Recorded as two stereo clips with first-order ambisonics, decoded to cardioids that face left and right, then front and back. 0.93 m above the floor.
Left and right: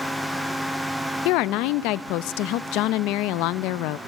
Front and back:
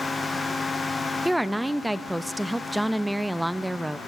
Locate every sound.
1.2 s a woman speaking: 95° left, 0.6 m